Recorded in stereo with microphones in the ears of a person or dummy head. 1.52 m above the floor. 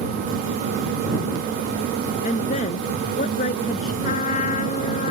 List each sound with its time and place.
2.2 s a woman speaking: 45° left (ahead or behind); by 3.9 s 50° left (ahead or behind)
4.0 s a trumpet: 45° left (ahead or behind)